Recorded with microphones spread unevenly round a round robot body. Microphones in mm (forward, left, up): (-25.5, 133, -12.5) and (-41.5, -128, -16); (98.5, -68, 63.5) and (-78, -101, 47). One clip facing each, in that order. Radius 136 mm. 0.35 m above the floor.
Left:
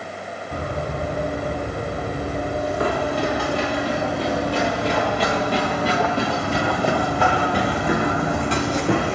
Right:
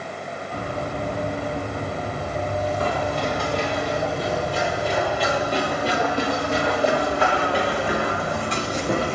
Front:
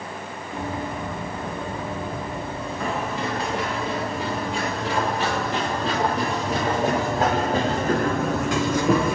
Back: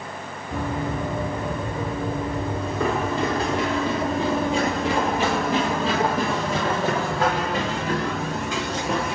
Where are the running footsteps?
130° left, 5 m; by 9.1 s 45° left, 1.6 m.